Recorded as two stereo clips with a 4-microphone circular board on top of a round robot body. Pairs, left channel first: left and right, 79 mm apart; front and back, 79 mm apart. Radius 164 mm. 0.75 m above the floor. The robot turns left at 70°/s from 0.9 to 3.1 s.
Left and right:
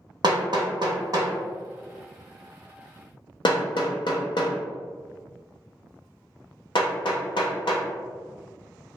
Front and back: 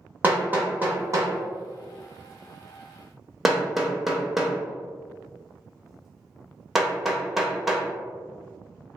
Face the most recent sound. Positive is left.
turn(degrees=95)